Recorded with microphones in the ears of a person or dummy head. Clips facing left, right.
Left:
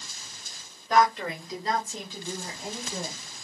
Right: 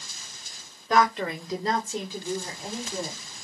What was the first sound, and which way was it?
A woman speaking, 50° right (ahead or behind).